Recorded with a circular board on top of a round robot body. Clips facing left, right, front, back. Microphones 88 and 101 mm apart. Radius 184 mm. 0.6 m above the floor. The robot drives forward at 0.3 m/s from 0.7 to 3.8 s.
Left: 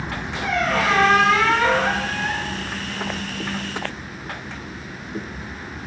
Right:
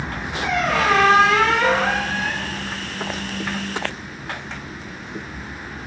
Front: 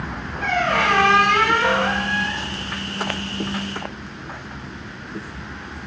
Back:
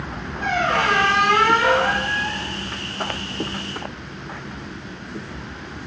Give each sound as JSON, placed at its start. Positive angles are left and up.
{"t": 0.4, "sound": "a squeak", "azimuth_deg": -115, "distance_m": 8.5}